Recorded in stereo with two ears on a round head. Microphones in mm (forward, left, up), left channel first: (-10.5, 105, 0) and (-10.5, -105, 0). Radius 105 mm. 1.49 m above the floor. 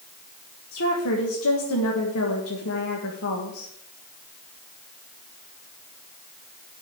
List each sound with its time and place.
0.7 s a woman speaking: 70° left (ahead or behind), 1.5 m